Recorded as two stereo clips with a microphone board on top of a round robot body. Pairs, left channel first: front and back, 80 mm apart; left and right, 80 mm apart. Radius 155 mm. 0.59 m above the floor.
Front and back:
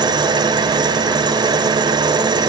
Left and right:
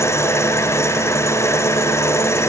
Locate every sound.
0.0 s an engine running: 150° left, 1.5 m